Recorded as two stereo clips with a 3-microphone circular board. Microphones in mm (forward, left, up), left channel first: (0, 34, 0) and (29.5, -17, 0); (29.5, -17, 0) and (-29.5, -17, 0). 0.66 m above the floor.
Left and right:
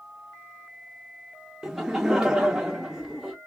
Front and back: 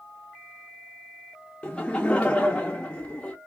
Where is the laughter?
5° right, 0.6 m.